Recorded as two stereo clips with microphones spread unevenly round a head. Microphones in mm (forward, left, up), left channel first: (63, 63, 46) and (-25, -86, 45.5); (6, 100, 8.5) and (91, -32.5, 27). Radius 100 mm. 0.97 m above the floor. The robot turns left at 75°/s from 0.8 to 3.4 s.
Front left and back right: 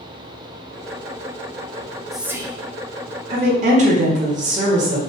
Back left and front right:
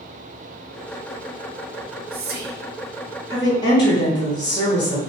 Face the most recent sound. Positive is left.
turn(degrees=-170)